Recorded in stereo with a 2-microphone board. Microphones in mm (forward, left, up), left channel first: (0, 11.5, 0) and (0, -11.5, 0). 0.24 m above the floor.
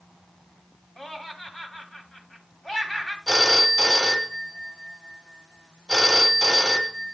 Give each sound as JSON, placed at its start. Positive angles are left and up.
{"t": 1.0, "sound": "laughter", "side_deg": 25, "distance_m": 1.3}
{"t": 3.3, "sound": "a phone ringing", "side_deg": -10, "distance_m": 1.2}